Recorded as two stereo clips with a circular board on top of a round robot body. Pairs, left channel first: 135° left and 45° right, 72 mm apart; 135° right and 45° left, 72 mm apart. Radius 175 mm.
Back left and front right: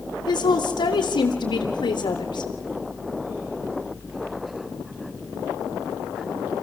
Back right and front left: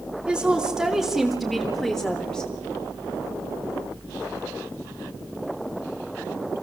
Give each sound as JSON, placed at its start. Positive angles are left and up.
{"t": 0.3, "sound": "a woman speaking", "azimuth_deg": 125, "distance_m": 3.5}